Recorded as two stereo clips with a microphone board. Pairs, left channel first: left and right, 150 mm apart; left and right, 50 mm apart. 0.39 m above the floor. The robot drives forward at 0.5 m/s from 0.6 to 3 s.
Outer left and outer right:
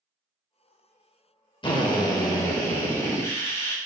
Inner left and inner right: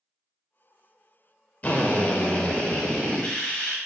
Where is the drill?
35° left (ahead or behind), 0.7 m; by 3.8 s 20° left (ahead or behind), 1.2 m.